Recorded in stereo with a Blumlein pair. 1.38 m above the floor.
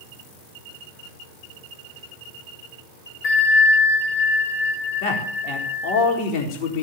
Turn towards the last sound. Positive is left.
turn(degrees=40)